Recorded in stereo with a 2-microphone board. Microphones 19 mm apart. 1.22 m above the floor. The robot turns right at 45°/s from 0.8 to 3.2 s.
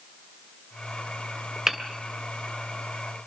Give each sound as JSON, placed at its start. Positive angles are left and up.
{"t": 1.7, "sound": "hammering", "side_deg": -25, "distance_m": 2.5}